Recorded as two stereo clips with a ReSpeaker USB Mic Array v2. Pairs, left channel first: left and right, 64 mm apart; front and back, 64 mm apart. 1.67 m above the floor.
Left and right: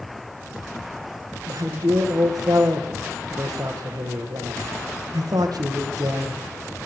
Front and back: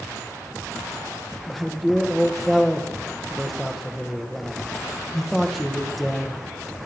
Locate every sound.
1.5 s a man speaking: 85° right, 2.0 m